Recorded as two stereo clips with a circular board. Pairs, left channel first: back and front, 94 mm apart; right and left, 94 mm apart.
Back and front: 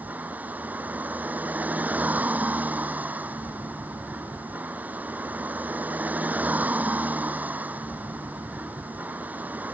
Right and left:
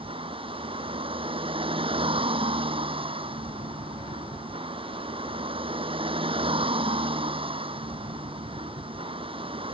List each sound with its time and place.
0.0 s a vehicle: 75° left